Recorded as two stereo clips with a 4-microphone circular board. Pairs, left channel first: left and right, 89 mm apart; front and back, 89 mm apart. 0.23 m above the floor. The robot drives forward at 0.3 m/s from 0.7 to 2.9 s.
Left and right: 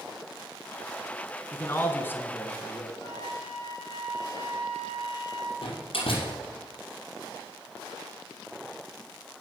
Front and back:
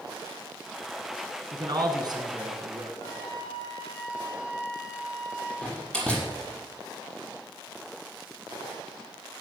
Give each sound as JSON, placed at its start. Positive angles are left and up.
{"t": 1.5, "sound": "a man speaking", "azimuth_deg": 150, "distance_m": 1.9}
{"t": 3.0, "sound": "a flute", "azimuth_deg": 45, "distance_m": 4.0}
{"t": 5.6, "sound": "a door slam", "azimuth_deg": 80, "distance_m": 4.5}